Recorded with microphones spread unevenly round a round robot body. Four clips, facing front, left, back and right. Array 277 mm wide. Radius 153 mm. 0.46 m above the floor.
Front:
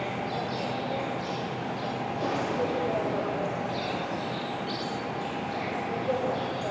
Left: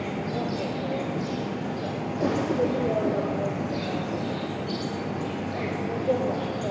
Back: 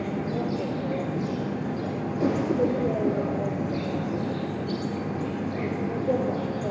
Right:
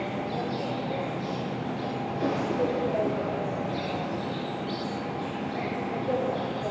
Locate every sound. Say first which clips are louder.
0.0 s an insect: left 1 dB, back 3 dB; 165° left, 1.3 m